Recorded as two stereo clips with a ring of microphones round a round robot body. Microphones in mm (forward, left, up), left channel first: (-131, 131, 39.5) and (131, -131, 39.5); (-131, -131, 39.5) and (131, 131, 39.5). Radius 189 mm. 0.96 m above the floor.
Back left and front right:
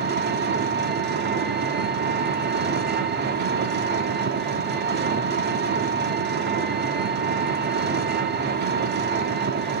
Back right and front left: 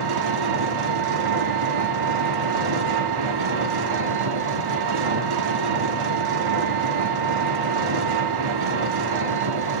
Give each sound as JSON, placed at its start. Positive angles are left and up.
{"t": 0.0, "sound": "an engine running", "azimuth_deg": 20, "distance_m": 1.5}